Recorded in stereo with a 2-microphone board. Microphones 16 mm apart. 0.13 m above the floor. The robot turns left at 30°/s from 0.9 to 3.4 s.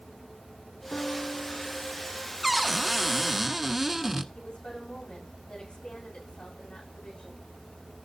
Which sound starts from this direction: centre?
A cupboard door, at 2.4 s.